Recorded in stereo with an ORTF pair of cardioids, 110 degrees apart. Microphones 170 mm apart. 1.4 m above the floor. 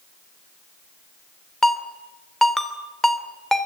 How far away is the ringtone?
About 2.5 m.